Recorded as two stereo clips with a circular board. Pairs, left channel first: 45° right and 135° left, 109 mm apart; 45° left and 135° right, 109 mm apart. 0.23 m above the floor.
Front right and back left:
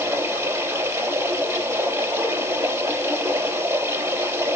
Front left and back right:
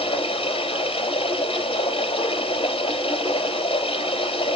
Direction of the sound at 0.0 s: 75° left.